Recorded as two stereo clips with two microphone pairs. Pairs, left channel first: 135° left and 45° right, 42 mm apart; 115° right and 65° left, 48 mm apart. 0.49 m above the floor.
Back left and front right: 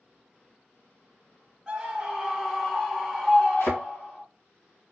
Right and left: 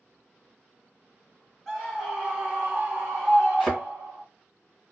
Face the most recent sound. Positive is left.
turn(degrees=140)